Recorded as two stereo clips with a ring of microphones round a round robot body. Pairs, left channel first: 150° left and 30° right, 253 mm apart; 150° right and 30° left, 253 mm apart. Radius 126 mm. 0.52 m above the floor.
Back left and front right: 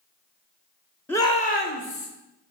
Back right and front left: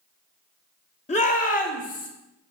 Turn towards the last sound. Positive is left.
turn(degrees=160)